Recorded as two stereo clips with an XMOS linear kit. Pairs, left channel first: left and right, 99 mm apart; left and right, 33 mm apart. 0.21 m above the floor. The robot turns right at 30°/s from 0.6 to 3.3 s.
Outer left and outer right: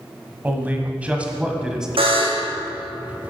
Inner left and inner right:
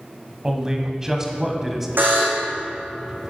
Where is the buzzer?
70° right (ahead or behind), 2 m; by 2.5 s 55° right (ahead or behind), 2 m.